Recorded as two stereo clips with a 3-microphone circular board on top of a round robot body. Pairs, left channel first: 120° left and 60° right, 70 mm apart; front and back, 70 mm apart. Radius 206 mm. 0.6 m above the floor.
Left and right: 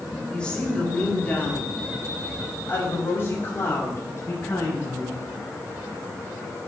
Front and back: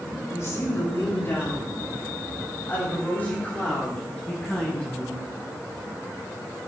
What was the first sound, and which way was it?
A woman speaking, 40° left.